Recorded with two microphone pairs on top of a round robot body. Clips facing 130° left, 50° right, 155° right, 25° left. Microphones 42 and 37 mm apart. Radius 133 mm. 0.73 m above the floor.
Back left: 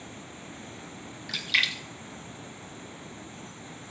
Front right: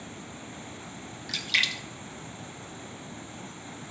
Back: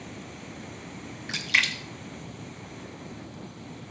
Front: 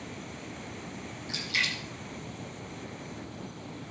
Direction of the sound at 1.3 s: 140° right.